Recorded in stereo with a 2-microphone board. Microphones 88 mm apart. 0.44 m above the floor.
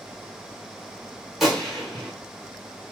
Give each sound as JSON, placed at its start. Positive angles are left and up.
{"t": 1.4, "sound": "a gunshot", "side_deg": -5, "distance_m": 1.0}